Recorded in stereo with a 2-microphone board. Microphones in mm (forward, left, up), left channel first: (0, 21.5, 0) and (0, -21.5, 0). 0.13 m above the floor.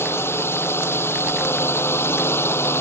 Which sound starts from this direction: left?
A drone, at 0.0 s.